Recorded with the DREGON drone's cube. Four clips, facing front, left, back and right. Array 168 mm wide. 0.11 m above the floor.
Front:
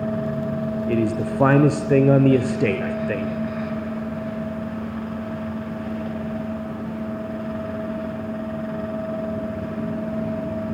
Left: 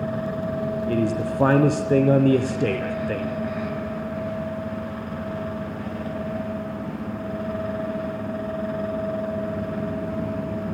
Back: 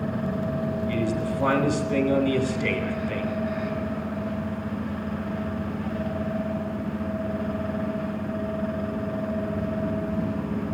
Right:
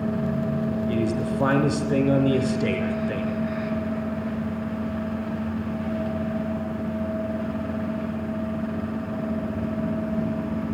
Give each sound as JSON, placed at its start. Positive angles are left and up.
{"t": 0.9, "sound": "a man speaking", "azimuth_deg": 20, "distance_m": 2.0}